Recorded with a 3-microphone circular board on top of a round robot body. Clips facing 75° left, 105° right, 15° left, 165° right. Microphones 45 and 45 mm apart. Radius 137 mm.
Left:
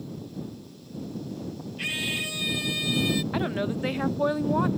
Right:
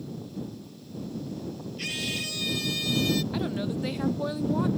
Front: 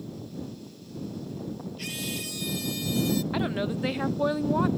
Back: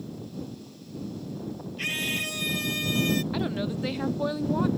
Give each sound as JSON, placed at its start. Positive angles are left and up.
{"t": 1.8, "sound": "a scream", "azimuth_deg": 145}
{"t": 3.3, "sound": "a woman speaking", "azimuth_deg": 70}